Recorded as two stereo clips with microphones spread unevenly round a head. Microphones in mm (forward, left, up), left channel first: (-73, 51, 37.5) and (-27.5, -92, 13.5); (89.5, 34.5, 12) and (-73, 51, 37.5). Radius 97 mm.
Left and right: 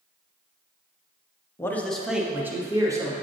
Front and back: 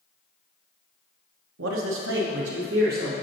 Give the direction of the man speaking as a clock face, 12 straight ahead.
6 o'clock.